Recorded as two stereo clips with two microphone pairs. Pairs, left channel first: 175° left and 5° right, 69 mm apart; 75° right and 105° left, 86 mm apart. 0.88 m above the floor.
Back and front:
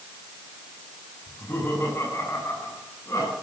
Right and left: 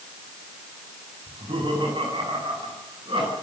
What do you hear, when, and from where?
1.3 s laughter: 120° left, 8 m; by 3.3 s 130° left, 9.5 m